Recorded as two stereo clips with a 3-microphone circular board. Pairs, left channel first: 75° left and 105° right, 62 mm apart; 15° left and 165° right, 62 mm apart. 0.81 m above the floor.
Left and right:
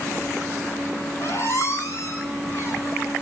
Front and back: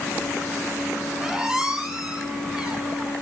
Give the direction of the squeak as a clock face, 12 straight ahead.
8 o'clock.